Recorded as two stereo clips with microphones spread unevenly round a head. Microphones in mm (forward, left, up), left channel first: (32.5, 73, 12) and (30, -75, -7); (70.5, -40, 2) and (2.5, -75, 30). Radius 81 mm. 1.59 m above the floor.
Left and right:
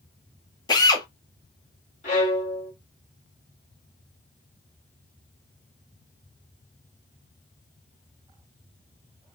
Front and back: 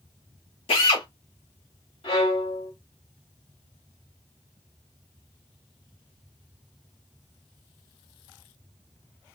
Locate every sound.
0.7 s a drill: 45° left, 0.9 m
2.0 s a violin: 65° left, 1.8 m